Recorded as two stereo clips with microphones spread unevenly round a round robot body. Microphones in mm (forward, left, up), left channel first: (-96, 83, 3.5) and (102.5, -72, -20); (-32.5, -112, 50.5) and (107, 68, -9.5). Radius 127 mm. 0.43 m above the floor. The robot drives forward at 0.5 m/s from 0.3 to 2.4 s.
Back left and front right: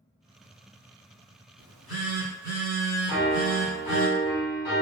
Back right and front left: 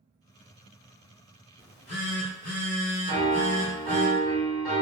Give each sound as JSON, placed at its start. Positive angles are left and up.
{"t": 1.6, "sound": "a phone buzzing", "azimuth_deg": -105, "distance_m": 1.1}
{"t": 3.1, "sound": "a piano", "azimuth_deg": 135, "distance_m": 1.4}